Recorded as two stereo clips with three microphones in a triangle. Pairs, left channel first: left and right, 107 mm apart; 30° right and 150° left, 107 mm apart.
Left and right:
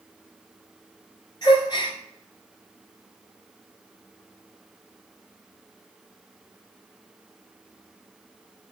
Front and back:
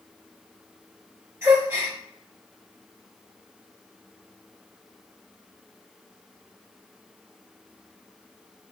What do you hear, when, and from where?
1.4 s a gasp: 105° left, 1.9 m